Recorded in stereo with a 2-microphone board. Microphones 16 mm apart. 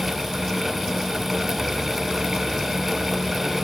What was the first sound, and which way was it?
Only background noise.